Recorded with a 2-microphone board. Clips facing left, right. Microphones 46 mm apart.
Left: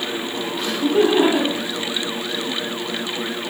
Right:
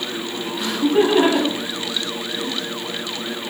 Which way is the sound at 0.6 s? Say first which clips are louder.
Even; 5° right (ahead or behind).